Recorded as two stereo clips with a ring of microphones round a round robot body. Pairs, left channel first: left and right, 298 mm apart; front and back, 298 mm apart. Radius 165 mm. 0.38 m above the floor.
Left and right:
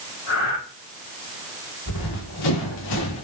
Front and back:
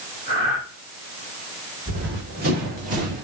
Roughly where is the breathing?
Behind left.